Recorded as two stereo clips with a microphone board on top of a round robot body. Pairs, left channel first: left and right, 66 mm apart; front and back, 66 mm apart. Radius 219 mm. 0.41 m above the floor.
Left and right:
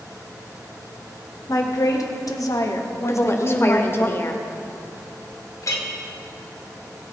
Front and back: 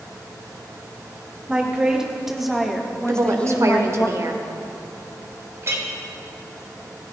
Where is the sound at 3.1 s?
140° left, 1.8 m.